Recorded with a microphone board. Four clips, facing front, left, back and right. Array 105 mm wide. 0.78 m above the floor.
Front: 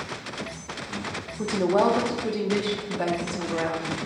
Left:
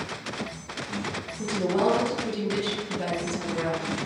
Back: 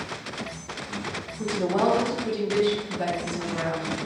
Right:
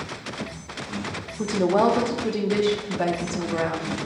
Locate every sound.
1.4 s a woman speaking: 65° right, 1.5 m